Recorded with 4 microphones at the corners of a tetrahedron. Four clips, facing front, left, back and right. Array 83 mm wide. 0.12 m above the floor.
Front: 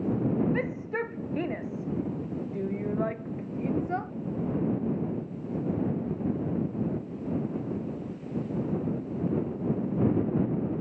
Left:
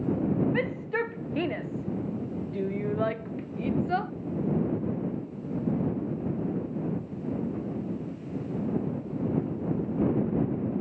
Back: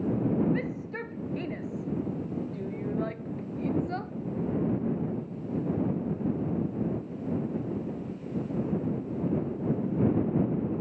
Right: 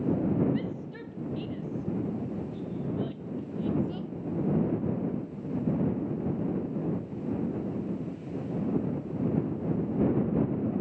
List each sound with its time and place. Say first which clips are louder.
0.5 s a shout: left 6 dB, front 3 dB; 65° left; by 4.1 s 75° left